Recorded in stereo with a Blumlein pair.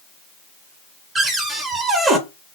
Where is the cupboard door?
15° right, 0.7 m.